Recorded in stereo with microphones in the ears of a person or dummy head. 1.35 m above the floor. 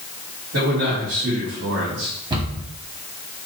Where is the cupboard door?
25° right (ahead or behind), 1.5 m.